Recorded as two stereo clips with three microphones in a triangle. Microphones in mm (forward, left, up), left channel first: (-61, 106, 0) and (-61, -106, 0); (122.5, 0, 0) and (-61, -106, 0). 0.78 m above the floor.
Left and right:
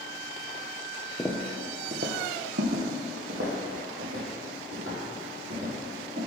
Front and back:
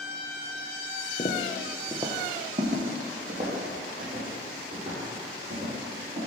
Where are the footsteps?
20° left, 0.9 m; by 6.2 s 110° right, 6 m.